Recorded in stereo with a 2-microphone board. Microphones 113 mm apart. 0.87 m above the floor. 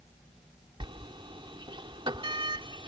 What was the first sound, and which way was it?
A sliding door, 45° right (ahead or behind).